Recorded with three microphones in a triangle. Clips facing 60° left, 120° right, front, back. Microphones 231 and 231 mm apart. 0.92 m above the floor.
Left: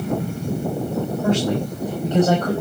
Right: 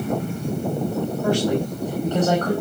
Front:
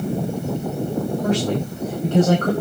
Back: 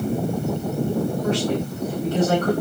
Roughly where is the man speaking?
Ahead.